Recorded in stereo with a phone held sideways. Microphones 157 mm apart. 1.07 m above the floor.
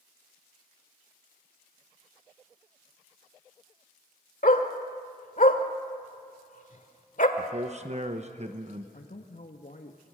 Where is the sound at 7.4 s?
45° right (ahead or behind), 1.1 m.